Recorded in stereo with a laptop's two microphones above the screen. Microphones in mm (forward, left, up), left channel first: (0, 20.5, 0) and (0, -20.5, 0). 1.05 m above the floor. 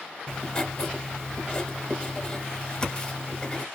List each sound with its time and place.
0.3 s writing: 20° left (ahead or behind), 0.8 m